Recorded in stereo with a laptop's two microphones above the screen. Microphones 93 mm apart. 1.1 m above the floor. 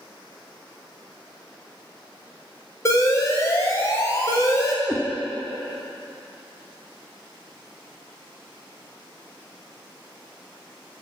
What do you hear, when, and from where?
2.9 s an alarm: 30° left (ahead or behind), 0.7 m
4.8 s a cat meowing: 10° left (ahead or behind), 0.7 m